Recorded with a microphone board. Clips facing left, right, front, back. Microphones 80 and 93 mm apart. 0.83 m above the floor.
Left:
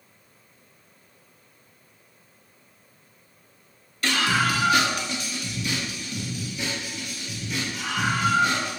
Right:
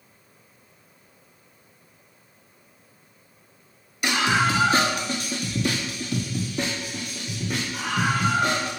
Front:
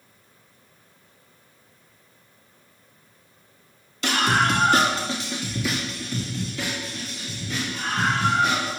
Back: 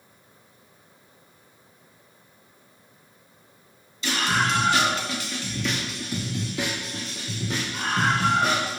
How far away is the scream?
About 2 m.